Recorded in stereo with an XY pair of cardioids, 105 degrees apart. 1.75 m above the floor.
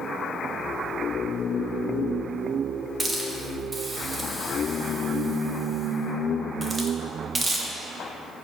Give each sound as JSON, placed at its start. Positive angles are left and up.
{"t": 3.0, "sound": "a hiss", "azimuth_deg": -20, "distance_m": 0.5}